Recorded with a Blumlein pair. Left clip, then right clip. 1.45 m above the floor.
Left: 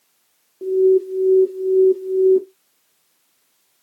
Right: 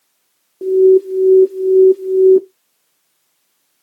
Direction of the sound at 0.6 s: 20° right.